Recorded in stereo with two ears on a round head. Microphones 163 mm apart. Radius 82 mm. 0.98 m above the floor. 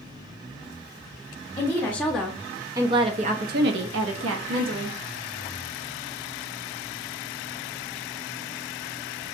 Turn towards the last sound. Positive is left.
turn(degrees=-75)  # may be behind; listen again after turning